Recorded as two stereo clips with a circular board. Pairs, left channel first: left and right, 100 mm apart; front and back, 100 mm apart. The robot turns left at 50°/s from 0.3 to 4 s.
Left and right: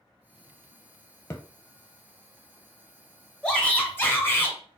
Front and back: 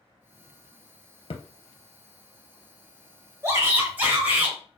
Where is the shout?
155° left, 0.9 m; by 4.6 s 130° left, 0.9 m.